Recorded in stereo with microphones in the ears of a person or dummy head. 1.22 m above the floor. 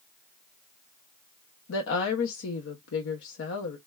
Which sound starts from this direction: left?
A woman speaking, at 1.7 s.